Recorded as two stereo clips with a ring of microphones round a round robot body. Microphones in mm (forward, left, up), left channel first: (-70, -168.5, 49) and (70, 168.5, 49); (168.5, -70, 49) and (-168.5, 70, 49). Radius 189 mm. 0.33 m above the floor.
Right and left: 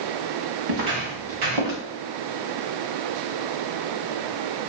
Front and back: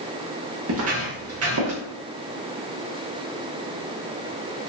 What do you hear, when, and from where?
0.7 s footsteps: 105° left, 4 m